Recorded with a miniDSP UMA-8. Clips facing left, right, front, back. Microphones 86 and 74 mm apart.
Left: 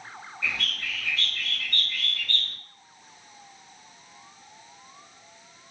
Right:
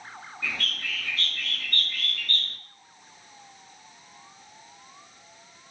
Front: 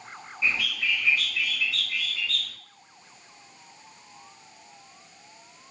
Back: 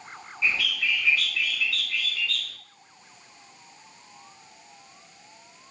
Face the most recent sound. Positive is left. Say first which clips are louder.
# left 1 dB, back 1 dB
turn(degrees=-60)